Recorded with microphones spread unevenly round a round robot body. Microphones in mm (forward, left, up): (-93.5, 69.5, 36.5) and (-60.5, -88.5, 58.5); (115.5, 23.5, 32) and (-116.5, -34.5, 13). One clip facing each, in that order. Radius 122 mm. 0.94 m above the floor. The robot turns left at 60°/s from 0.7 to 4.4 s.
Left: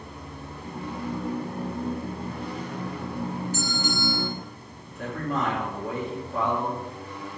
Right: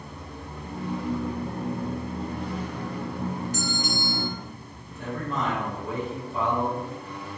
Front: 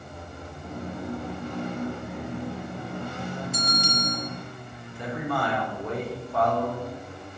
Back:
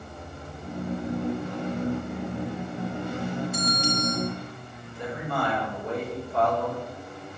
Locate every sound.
3.5 s a bell: 20° left, 1.8 m; by 4.3 s 25° right, 1.8 m
4.8 s a man speaking: 50° left, 3.5 m